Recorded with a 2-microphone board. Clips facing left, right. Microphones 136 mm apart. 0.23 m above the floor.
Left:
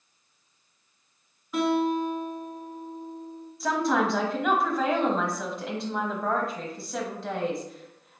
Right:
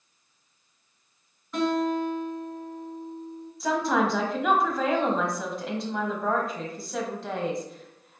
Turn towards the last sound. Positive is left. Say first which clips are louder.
# even
turn(degrees=0)  # may be behind; listen again after turning